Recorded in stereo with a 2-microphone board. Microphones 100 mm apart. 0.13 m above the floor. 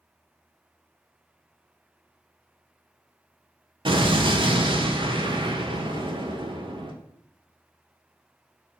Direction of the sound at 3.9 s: 55° right (ahead or behind).